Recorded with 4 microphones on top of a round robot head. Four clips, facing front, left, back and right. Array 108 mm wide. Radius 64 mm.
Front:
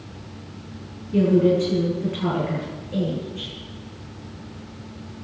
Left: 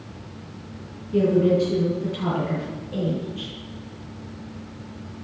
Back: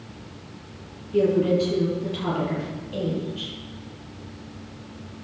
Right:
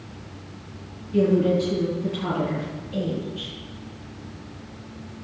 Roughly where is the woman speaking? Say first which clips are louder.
Left 1 dB, front 2 dB; ahead left.